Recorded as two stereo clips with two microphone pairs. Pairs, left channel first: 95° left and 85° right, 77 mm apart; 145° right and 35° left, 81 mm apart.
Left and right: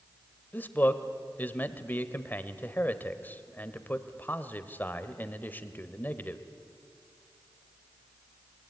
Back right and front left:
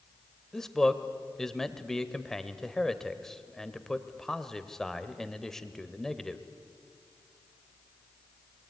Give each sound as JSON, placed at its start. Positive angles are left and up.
{"t": 0.5, "sound": "a man speaking", "azimuth_deg": 135, "distance_m": 1.3}